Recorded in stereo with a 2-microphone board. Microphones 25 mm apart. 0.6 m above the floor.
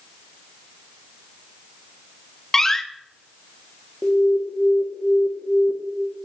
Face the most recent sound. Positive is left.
turn(degrees=30)  # may be behind; listen again after turning